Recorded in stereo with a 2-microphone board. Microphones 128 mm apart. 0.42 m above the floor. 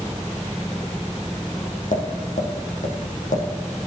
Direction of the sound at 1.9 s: 75° left (ahead or behind).